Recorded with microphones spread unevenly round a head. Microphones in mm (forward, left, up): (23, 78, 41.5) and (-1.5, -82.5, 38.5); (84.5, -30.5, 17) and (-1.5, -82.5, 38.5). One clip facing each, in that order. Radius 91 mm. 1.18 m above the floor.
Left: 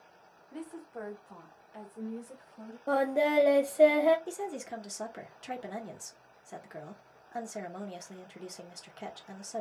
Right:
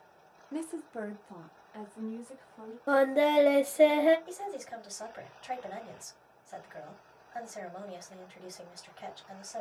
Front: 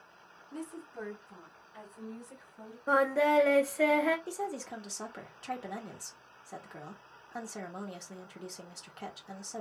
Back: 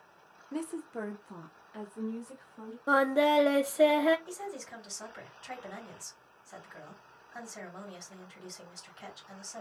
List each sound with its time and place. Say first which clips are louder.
0.5 s a woman speaking: right 5 dB, back 6 dB; 120° right, 0.7 m; by 2.8 s 160° left, 1.7 m
2.9 s singing: right 3 dB, back 1 dB; 175° left, 0.6 m
4.3 s a woman speaking: left 2 dB, front 4 dB; 55° left, 1.3 m